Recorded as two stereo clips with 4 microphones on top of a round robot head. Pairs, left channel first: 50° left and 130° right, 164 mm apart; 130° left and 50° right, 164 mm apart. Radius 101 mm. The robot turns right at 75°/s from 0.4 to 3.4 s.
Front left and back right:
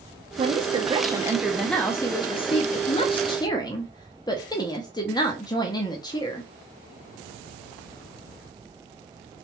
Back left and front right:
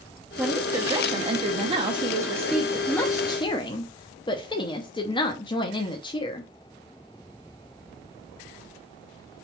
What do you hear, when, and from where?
0.4 s a woman speaking: 130° right, 0.7 m; by 6.5 s 95° left, 0.7 m